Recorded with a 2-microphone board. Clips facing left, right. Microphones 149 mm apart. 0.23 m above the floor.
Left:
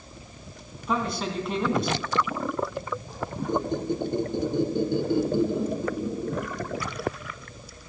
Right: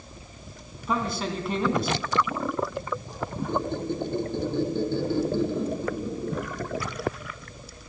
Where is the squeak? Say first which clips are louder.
Left 2 dB; 15° left (ahead or behind), 1.6 m.